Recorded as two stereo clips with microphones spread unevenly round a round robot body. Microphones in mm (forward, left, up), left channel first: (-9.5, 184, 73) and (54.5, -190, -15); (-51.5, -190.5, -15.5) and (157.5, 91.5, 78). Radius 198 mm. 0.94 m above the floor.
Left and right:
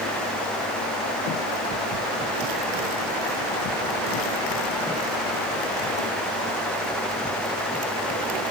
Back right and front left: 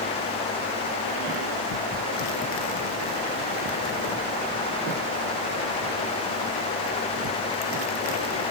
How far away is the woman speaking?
I don't hear a woman speaking.